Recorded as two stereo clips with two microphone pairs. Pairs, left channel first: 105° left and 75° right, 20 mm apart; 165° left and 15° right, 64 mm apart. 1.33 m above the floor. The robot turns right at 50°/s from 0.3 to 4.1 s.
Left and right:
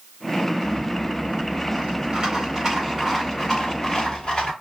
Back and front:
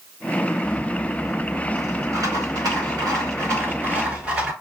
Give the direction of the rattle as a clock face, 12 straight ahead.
4 o'clock.